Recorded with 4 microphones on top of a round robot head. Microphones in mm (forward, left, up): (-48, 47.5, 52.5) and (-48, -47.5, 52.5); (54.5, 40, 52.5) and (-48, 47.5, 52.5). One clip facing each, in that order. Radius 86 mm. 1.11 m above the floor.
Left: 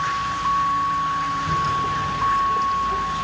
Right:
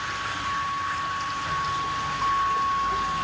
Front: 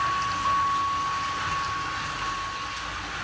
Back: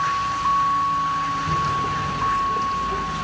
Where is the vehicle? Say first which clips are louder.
Left 8 dB, back 4 dB; 125° left; by 3.2 s 165° left.